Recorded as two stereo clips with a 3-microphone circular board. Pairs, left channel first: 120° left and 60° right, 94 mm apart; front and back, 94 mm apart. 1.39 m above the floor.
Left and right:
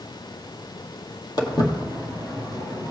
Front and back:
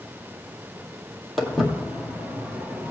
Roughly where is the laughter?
I don't hear laughter.